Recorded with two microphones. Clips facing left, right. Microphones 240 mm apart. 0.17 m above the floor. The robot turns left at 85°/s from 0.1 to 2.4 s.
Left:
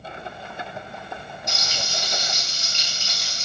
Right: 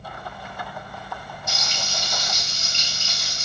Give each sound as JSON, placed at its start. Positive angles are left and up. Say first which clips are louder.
{"t": 1.5, "sound": "frying", "louder": "left 1 dB", "azimuth_deg": -165, "distance_m": 1.2}